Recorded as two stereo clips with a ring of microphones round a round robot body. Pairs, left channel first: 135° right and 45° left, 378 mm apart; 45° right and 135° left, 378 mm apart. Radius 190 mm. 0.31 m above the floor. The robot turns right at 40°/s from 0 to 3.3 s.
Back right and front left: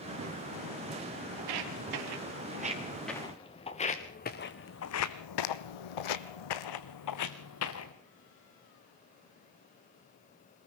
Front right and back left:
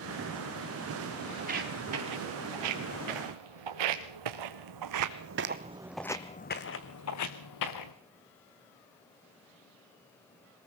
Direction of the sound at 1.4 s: 60° left.